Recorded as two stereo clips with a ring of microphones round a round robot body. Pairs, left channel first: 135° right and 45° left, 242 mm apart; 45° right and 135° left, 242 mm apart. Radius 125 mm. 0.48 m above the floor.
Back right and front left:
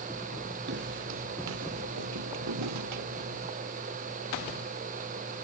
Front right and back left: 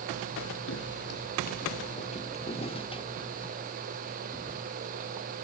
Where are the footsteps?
5° right; by 3.5 s 30° left.